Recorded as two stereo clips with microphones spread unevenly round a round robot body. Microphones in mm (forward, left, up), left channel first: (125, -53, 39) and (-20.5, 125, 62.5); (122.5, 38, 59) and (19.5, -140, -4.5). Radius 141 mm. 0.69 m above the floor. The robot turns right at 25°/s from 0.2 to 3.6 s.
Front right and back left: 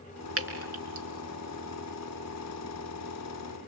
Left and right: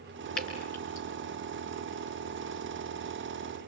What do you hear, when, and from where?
0.4 s dripping: 105° left, 4 m; by 1.1 s 120° left, 4 m